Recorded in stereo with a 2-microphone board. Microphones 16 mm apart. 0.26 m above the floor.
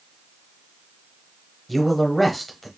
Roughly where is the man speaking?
Centre.